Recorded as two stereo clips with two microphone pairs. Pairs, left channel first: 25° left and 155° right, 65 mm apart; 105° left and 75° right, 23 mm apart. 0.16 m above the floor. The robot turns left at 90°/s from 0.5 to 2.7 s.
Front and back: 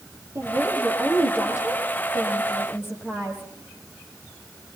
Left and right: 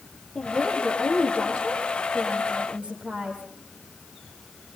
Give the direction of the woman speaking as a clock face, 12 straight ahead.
7 o'clock.